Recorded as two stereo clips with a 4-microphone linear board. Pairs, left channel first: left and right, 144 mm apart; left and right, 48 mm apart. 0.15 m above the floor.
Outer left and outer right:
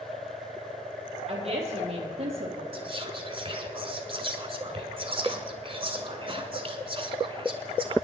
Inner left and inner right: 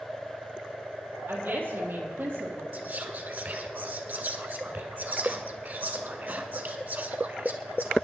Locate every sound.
1.3 s a woman speaking: 45° right (ahead or behind), 4 m
2.7 s whispering: 40° right (ahead or behind), 1.5 m